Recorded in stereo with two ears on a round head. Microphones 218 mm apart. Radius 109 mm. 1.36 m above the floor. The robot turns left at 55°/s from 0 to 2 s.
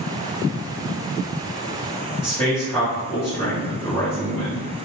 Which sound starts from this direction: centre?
A man speaking, at 2.2 s.